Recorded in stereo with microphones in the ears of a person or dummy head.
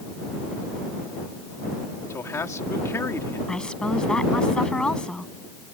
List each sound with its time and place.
2.1 s a man speaking: 15° left (ahead or behind)
3.5 s a woman speaking: 5° left (ahead or behind)